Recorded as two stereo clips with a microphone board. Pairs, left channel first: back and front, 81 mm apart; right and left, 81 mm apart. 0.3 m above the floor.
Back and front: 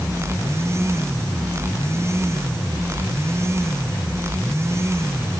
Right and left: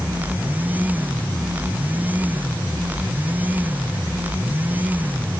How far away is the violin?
I don't hear a violin.